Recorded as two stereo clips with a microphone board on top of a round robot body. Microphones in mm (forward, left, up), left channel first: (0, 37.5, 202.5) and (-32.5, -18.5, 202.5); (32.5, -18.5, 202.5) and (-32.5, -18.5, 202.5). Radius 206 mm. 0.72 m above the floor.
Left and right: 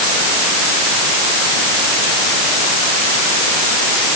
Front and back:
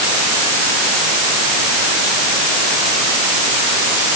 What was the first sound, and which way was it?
Only background noise.